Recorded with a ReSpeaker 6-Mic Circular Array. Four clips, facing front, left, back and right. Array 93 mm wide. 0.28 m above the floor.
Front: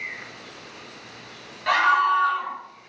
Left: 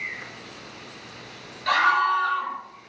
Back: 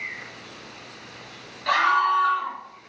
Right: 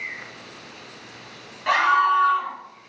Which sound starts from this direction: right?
A scream, at 1.7 s.